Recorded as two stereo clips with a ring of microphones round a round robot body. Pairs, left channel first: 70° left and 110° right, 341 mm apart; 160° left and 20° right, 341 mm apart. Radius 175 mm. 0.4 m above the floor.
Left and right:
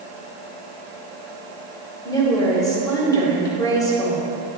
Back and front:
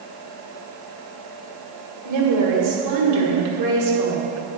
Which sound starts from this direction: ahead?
A woman speaking, at 2.0 s.